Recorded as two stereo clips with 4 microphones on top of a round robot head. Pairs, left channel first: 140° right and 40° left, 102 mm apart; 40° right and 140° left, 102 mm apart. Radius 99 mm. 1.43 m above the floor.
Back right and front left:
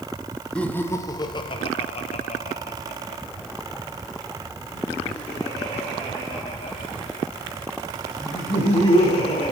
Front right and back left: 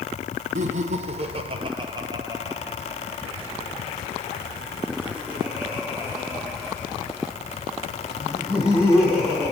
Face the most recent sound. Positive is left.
turn(degrees=-135)